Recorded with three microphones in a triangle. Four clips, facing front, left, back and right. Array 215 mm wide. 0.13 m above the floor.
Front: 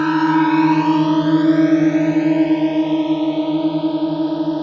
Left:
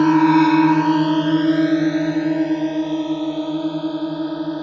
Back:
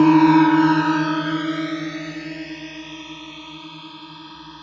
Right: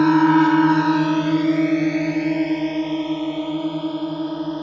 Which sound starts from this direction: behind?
A drone, at 0.0 s.